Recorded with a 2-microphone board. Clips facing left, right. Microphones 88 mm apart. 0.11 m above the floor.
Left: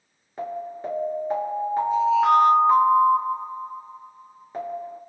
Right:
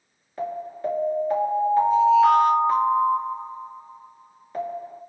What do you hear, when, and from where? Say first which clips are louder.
0.4 s an alarm: right 2 dB; 25° left (ahead or behind), 1.6 m